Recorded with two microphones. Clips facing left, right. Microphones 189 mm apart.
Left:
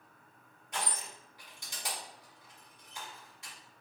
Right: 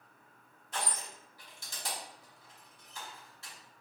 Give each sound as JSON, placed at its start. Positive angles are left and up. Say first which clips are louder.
{"t": 0.7, "sound": "crushing", "louder": "even", "side_deg": 15, "distance_m": 1.9}